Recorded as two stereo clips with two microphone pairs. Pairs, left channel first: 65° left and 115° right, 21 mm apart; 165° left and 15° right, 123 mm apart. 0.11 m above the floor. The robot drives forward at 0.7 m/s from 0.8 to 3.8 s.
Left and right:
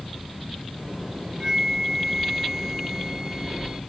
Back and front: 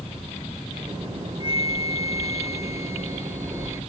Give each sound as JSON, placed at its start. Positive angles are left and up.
{"t": 1.4, "sound": "a flute", "azimuth_deg": -170}